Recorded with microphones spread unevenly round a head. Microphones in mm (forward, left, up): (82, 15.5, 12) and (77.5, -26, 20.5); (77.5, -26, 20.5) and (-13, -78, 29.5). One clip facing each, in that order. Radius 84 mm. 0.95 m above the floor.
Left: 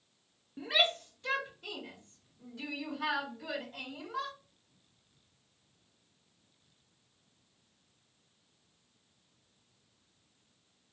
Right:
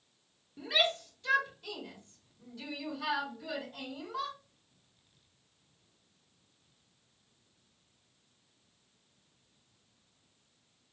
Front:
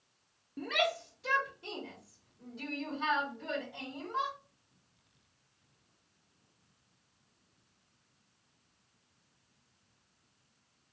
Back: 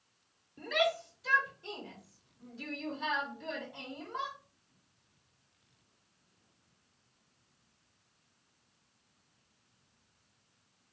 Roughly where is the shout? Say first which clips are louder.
Even, back 1 dB; ahead left.